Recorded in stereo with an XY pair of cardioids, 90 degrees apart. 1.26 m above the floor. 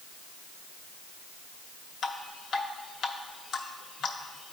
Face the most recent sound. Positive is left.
turn(degrees=70)